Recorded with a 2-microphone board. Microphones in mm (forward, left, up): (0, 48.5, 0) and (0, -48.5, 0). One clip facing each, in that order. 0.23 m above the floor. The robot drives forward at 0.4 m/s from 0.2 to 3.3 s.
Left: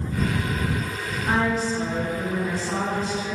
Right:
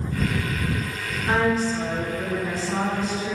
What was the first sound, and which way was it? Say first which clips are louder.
A woman speaking: right 2 dB; 10° left (ahead or behind).